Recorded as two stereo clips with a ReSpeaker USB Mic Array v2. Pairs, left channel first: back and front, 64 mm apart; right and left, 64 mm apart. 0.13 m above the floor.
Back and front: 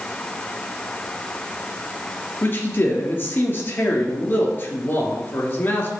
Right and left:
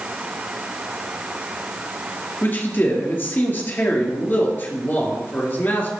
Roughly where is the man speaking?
Behind right.